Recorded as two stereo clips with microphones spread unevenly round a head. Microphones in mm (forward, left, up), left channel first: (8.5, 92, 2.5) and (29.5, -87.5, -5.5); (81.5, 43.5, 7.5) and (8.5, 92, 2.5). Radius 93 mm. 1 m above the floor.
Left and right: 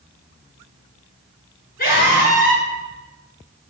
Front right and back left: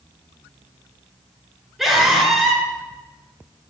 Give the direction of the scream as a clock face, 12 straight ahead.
10 o'clock.